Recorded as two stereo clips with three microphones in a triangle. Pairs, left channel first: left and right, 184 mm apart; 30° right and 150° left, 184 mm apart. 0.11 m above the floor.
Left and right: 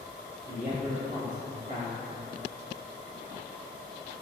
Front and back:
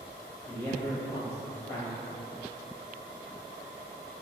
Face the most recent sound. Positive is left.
turn(degrees=-100)